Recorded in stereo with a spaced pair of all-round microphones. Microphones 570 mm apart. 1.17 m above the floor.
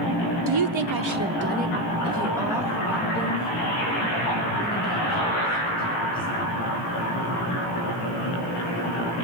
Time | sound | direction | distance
0.5 | a woman speaking | 60° right (ahead or behind) | 0.6 m